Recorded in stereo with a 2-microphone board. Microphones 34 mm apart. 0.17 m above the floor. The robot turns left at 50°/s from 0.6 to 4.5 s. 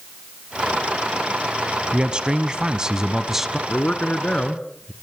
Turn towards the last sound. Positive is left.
turn(degrees=35)